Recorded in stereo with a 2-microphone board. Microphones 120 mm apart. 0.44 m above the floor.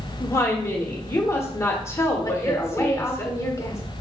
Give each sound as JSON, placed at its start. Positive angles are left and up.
{"t": 0.2, "sound": "a woman speaking", "side_deg": 20, "distance_m": 0.9}
{"t": 2.2, "sound": "a woman speaking", "side_deg": 25, "distance_m": 1.0}